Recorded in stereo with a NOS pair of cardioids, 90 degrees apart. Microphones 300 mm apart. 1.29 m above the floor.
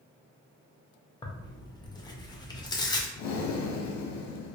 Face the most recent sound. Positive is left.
turn(degrees=60)